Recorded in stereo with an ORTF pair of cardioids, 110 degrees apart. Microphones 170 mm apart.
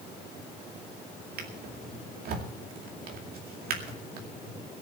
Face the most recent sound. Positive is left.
turn(degrees=-65)